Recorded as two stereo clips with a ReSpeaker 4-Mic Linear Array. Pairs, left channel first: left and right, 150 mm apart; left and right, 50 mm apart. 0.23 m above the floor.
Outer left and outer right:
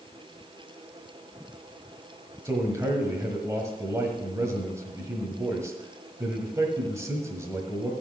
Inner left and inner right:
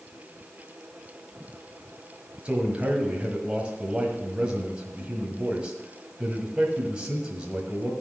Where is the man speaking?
20° right (ahead or behind), 1.5 m.